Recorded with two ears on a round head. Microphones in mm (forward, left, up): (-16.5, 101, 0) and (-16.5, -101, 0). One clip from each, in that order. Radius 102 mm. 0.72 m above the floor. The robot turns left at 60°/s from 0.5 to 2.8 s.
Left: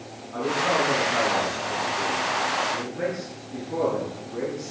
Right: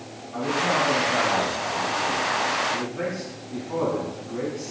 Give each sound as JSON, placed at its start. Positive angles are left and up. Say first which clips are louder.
{"t": 0.3, "sound": "a man speaking", "louder": "even", "azimuth_deg": 25, "distance_m": 5.0}